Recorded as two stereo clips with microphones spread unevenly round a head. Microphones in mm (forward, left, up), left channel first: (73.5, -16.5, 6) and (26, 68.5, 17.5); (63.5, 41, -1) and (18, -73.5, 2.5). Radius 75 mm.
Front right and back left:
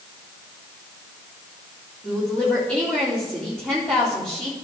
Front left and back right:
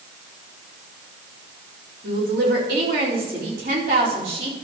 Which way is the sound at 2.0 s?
145° right.